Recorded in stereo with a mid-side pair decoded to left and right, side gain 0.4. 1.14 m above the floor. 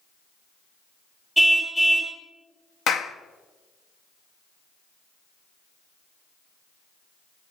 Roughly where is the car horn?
Ahead.